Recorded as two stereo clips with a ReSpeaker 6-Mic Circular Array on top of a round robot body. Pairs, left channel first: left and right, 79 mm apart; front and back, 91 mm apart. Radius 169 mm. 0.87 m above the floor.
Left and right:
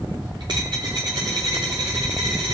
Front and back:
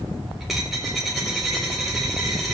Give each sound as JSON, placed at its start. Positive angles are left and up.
{"t": 0.4, "sound": "a dropped coin", "azimuth_deg": -90, "distance_m": 0.5}